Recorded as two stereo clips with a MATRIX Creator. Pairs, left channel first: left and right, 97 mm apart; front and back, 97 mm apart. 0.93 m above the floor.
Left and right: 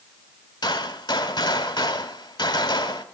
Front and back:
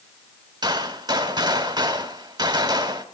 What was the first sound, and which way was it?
A gunshot, 130° left.